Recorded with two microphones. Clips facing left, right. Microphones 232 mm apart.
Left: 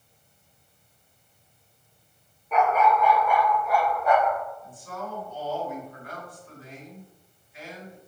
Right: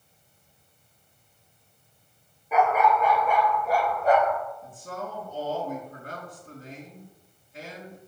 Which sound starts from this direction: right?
A man speaking, at 4.6 s.